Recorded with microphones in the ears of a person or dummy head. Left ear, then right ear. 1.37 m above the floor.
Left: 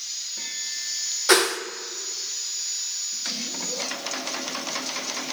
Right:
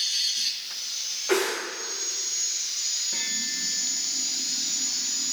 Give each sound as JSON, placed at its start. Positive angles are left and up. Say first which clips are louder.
{"t": 1.3, "sound": "a whoosh", "louder": "left 6 dB", "side_deg": 70, "distance_m": 0.6}